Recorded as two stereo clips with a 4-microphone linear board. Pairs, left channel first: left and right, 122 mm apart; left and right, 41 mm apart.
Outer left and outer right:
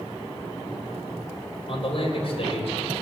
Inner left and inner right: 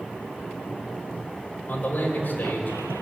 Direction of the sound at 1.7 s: 55° left (ahead or behind).